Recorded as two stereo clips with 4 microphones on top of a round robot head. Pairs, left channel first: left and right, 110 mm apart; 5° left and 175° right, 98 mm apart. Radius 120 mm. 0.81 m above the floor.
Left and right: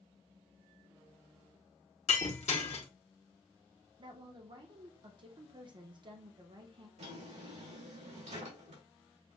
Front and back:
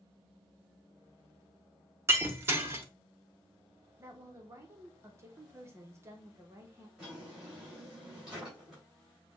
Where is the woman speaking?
120° right, 1.1 m.